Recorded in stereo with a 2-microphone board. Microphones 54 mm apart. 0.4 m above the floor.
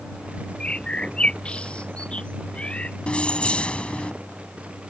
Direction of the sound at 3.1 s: 25° left (ahead or behind).